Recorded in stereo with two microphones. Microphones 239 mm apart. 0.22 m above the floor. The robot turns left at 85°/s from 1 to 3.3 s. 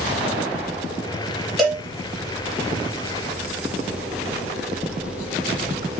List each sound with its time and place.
1.6 s a cowbell: centre (ahead or behind), 1.2 m; by 1.9 s 20° left (ahead or behind), 1.2 m